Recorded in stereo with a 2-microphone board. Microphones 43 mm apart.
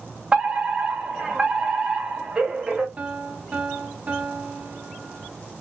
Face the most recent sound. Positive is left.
turn(degrees=-25)  # may be behind; listen again after turning